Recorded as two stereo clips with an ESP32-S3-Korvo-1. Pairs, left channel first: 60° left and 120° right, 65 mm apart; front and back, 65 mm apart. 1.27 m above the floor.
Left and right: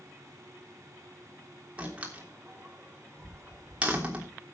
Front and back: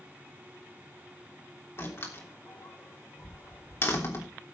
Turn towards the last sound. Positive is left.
turn(degrees=-50)